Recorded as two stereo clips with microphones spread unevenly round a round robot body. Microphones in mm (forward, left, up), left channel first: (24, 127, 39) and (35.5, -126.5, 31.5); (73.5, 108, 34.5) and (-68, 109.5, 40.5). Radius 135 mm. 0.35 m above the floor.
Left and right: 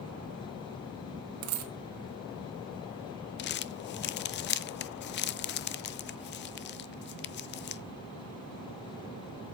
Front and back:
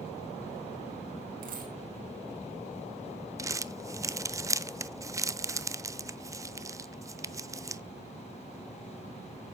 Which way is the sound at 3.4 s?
115° left.